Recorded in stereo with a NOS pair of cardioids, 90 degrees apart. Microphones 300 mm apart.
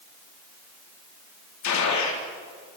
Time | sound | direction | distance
1.6 | a gunshot | 65° left | 4 m